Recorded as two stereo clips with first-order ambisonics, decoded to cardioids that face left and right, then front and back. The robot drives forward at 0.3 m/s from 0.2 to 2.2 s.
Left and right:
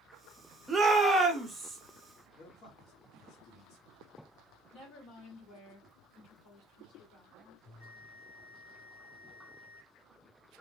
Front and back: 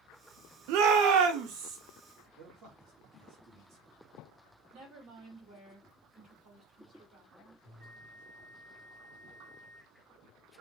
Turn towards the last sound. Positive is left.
turn(degrees=115)